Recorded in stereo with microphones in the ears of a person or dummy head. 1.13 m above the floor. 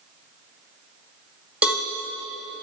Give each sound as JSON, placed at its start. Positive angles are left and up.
{"t": 1.6, "sound": "a cowbell", "side_deg": -5, "distance_m": 1.4}